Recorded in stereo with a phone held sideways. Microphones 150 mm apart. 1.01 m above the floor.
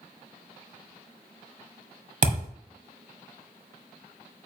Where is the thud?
60° right (ahead or behind), 1.6 m.